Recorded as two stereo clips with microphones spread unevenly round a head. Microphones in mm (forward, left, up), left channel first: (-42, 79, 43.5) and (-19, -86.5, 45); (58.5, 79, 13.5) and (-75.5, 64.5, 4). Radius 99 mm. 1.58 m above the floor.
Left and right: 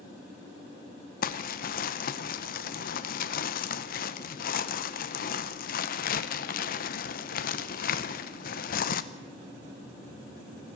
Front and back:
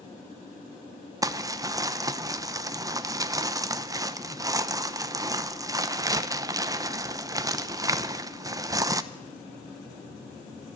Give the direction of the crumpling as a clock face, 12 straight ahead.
8 o'clock.